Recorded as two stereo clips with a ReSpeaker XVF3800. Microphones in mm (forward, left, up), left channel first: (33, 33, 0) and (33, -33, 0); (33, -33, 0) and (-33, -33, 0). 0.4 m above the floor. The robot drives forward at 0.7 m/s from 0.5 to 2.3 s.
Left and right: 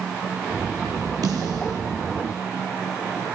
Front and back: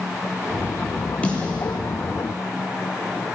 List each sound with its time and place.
1.2 s a snare drum: 70° right, 9.5 m; by 1.8 s 75° right, 9.5 m